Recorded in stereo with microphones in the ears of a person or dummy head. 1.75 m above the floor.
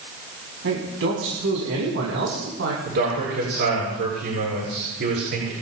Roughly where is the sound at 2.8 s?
Right.